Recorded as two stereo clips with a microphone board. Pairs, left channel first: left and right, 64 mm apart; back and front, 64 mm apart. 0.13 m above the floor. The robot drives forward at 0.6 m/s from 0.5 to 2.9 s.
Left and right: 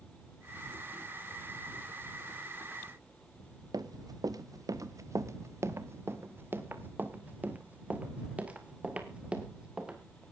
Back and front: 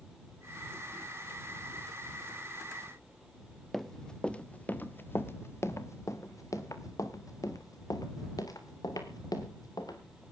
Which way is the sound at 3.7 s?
95° right.